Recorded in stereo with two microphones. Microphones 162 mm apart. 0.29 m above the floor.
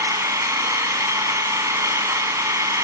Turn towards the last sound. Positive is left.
turn(degrees=-20)  # may be behind; listen again after turning